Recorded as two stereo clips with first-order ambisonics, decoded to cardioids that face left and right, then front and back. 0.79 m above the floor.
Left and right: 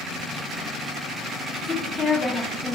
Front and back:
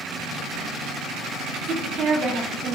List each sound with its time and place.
1.6 s a woman speaking: 160° left, 0.7 m